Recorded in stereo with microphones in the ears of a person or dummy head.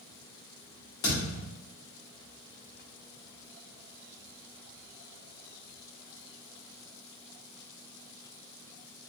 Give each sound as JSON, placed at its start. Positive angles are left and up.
{"t": 1.0, "sound": "a thud", "side_deg": 25, "distance_m": 1.6}